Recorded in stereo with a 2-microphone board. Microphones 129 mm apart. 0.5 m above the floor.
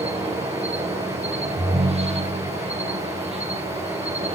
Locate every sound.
0.0 s an insect: 55° right (ahead or behind), 7 m
1.6 s a ringtone: 60° right (ahead or behind), 2.5 m